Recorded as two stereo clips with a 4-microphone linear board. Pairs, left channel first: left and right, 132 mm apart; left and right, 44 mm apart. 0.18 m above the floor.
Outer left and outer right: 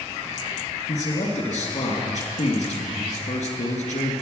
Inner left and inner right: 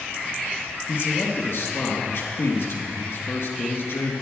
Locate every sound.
0.9 s a man speaking: 65° left (ahead or behind), 3 m